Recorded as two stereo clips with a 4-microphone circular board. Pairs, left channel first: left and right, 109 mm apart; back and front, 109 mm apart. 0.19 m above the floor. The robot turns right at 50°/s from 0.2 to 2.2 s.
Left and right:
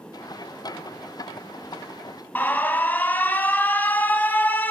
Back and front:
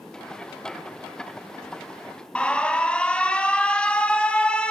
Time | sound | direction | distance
2.4 | an alarm | 120° left | 0.8 m